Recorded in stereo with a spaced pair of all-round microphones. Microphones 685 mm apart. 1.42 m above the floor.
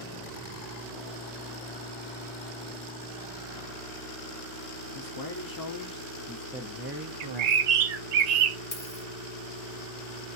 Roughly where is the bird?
Right.